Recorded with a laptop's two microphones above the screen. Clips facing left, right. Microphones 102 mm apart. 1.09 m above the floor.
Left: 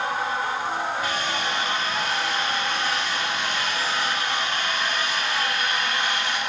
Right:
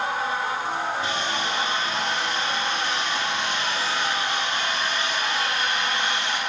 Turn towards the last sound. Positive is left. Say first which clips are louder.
# even
turn(degrees=-25)  # may be behind; listen again after turning